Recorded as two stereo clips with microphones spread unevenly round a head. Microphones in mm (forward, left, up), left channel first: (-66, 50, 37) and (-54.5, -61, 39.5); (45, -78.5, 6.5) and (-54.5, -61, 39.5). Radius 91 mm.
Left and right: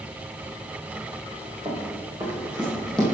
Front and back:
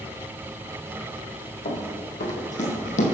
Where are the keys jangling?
No keys jangling in this recording.